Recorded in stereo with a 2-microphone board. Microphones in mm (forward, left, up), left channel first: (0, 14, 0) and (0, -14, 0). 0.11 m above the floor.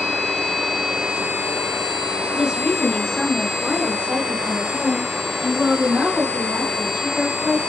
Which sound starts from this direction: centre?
A woman speaking, at 2.3 s.